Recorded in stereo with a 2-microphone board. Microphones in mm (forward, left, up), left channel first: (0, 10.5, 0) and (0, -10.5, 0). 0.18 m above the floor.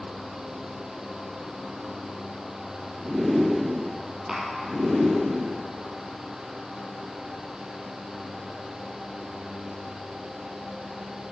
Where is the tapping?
20° right (ahead or behind), 2.5 m.